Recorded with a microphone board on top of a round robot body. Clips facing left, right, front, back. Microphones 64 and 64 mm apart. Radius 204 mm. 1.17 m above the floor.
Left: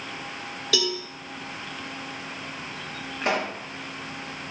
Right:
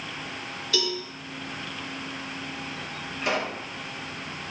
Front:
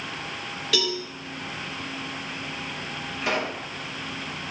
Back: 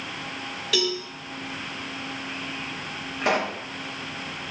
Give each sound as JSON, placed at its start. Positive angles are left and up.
{"t": 0.7, "sound": "a cowbell", "azimuth_deg": 90, "distance_m": 1.2}
{"t": 3.2, "sound": "a pop", "azimuth_deg": 145, "distance_m": 0.9}